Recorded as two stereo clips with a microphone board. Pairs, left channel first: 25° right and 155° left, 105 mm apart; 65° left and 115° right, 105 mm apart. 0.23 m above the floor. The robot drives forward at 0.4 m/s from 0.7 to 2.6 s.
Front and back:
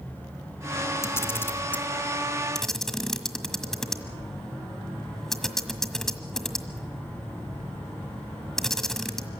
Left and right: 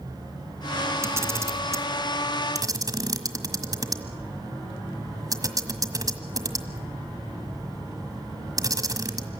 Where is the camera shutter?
65° right, 1.5 m; by 9.3 s 105° right, 1.5 m.